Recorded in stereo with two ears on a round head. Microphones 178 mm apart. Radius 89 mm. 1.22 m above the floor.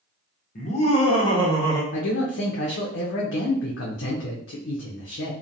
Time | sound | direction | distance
0.6 | laughter | 40° left (ahead or behind) | 0.8 m
1.9 | a man speaking | 65° left (ahead or behind) | 0.6 m